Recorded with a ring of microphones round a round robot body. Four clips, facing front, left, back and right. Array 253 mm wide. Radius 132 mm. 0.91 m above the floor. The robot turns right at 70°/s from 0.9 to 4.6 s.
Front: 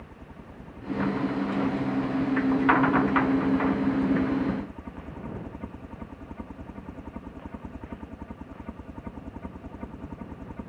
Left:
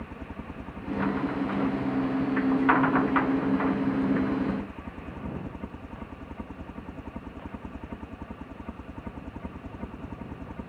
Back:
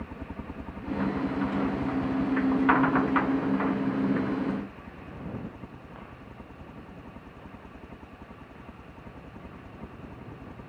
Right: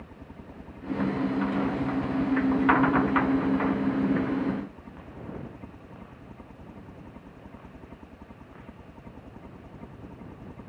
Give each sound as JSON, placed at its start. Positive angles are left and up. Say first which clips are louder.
{"t": 0.0, "sound": "a helicopter", "louder": "left 6 dB, back 7 dB", "azimuth_deg": 145}